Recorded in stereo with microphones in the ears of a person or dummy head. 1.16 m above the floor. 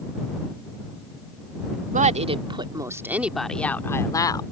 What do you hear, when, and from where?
1.9 s a woman speaking: 35° right (ahead or behind); by 4.4 s 25° left (ahead or behind)